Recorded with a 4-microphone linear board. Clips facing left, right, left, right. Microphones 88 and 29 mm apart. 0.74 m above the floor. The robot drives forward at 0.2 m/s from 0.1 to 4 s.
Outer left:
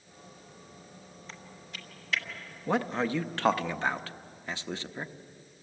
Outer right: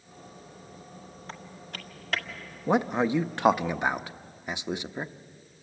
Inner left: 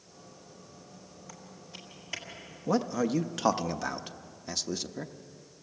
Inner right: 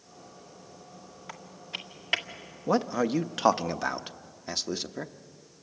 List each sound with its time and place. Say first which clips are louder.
1.3 s typing on a keyboard: outer right 5 dB, inner right 10 dB; 55° right (ahead or behind), 1.9 m
2.7 s a man speaking: outer right 4 dB, inner right 2 dB; 20° right (ahead or behind), 0.7 m; by 5.1 s 15° right (ahead or behind), 0.8 m